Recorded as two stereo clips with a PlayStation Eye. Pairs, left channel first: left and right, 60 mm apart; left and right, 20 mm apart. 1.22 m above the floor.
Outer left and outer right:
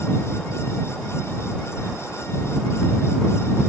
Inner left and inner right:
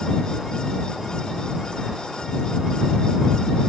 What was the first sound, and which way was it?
Keys jangling, 45° right (ahead or behind).